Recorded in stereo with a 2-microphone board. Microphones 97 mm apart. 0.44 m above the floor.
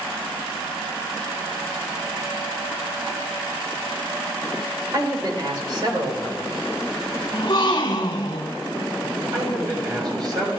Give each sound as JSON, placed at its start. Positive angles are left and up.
{"t": 4.9, "sound": "a man speaking", "side_deg": -45, "distance_m": 1.9}
{"t": 7.3, "sound": "a gasp", "side_deg": 50, "distance_m": 1.1}
{"t": 9.3, "sound": "a man speaking", "side_deg": -50, "distance_m": 5.5}